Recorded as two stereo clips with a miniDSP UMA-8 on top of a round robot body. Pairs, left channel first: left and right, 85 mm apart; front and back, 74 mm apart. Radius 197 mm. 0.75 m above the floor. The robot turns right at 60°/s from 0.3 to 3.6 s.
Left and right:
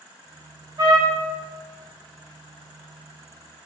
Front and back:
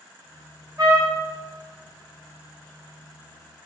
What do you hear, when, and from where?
0.8 s a trumpet: 135° right, 2.5 m; by 1.2 s 110° right, 2.5 m